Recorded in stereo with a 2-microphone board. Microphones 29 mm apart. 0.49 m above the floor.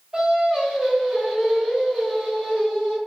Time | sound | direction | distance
0.1 | singing | 30° right (ahead or behind) | 1.3 m